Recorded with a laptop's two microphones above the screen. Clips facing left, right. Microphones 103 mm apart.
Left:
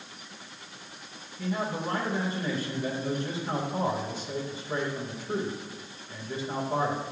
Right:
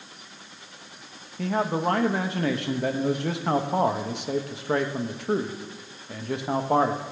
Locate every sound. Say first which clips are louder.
1.4 s a man speaking: right 6 dB; 70° right (ahead or behind), 0.7 m